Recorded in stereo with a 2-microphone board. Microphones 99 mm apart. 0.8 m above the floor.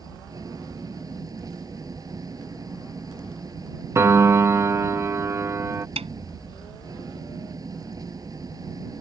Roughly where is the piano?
Right.